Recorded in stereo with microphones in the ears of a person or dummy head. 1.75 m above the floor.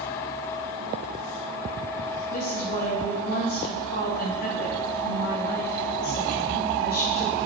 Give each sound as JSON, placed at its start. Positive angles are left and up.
{"t": 2.3, "sound": "a woman speaking", "side_deg": 45, "distance_m": 2.0}